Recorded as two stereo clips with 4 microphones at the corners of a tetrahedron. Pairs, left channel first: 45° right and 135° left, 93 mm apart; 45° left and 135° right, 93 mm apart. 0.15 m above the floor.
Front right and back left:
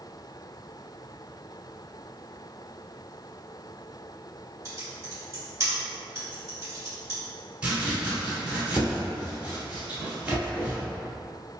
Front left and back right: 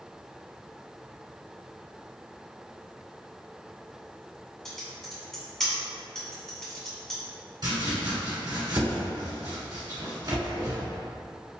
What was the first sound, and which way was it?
Typing on a keyboard, 125° left.